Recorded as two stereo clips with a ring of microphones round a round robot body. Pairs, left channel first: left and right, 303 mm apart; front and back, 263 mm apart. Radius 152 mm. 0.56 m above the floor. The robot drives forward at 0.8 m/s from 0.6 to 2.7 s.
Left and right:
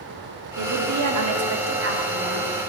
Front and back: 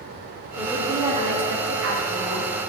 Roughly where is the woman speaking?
Right.